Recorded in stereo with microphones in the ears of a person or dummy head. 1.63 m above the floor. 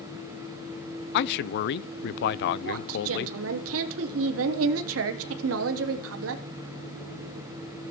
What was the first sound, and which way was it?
A man speaking, 60° left (ahead or behind).